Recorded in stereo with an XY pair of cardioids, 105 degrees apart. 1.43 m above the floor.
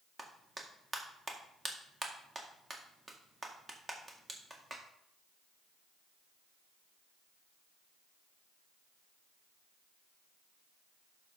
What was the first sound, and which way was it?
A clap, 20° right.